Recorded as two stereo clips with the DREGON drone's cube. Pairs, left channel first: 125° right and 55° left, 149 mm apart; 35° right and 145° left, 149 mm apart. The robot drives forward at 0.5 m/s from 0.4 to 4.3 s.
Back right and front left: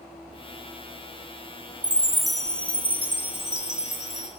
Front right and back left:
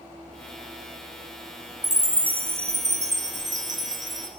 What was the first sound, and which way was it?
A chime, 125° left.